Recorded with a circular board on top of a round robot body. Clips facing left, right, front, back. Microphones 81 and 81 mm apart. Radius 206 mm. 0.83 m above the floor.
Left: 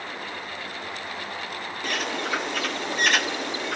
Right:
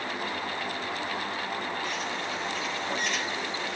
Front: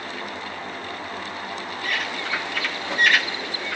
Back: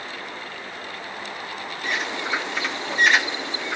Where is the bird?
110° left, 0.6 m.